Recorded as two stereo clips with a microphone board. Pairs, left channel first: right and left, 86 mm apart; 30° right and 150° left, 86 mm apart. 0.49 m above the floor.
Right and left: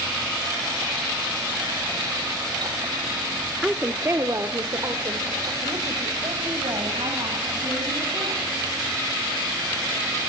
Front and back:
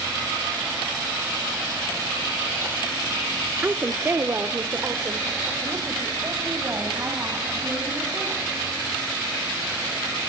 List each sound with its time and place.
3.6 s a woman speaking: 160° left, 0.8 m; by 8.5 s 90° left, 4.5 m